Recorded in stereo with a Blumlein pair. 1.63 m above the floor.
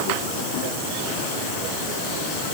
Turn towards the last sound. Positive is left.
No sound to turn to.